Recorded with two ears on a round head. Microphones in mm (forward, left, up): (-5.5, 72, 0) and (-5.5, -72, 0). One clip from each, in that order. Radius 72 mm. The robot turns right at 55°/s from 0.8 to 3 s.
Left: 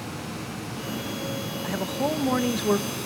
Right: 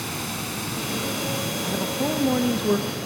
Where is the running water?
95° right, 5 m; by 3.1 s 25° left, 5 m.